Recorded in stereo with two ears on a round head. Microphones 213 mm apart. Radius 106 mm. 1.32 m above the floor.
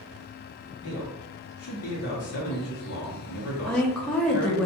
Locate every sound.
0.8 s a man speaking: 65° left (ahead or behind), 0.9 m
3.7 s a woman speaking: 5° left (ahead or behind), 0.5 m